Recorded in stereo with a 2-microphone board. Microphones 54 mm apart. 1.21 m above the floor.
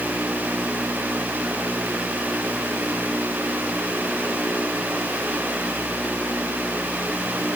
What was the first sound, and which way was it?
Only background noise.